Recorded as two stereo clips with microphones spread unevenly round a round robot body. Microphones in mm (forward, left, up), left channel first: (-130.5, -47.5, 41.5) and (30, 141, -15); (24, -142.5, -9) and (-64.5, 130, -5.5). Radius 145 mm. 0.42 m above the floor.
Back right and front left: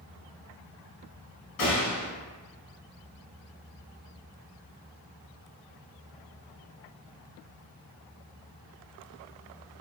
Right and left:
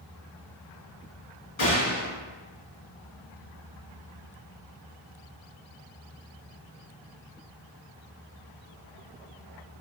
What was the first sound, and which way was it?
A gunshot, 120° right.